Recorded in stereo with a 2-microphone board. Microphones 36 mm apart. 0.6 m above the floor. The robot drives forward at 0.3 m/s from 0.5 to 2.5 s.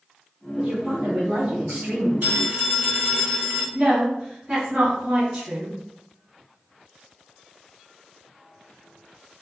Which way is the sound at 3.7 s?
30° right (ahead or behind).